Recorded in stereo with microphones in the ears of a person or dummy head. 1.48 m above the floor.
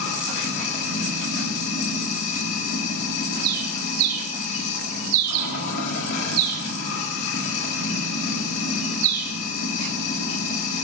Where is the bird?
70° right (ahead or behind), 3 m.